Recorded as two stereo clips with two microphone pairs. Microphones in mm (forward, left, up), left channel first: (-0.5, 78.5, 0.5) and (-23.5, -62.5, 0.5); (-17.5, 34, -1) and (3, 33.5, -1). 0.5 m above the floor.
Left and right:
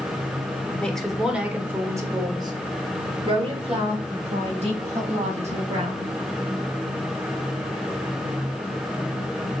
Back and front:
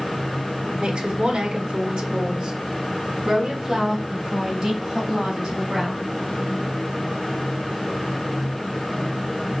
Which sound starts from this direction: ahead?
A woman speaking, at 0.8 s.